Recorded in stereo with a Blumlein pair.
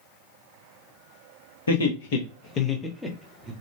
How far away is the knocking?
No knocking in this recording.